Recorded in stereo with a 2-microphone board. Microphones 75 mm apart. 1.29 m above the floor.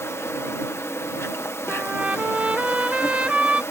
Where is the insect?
35° left (ahead or behind).